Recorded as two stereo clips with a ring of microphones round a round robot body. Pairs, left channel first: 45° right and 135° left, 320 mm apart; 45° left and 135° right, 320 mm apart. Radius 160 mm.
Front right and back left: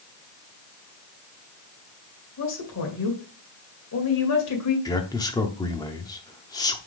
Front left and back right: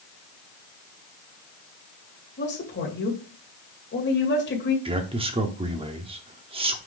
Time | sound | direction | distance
2.4 | a woman speaking | 10° right | 2 m
4.8 | a man speaking | 100° right | 0.7 m